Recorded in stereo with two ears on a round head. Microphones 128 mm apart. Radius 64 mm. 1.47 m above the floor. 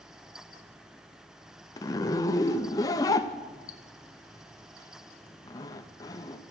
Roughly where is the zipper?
Left.